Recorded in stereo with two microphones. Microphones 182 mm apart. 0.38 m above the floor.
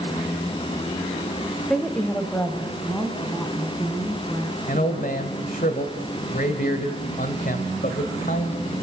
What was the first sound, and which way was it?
A woman speaking, 5° left (ahead or behind).